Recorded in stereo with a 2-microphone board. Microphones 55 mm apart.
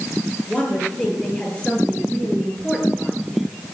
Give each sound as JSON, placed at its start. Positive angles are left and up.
{"t": 0.5, "sound": "a woman speaking", "side_deg": 25, "distance_m": 6.5}